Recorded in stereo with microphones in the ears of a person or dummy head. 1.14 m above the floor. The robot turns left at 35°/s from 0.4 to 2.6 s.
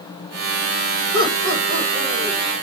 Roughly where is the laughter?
Right.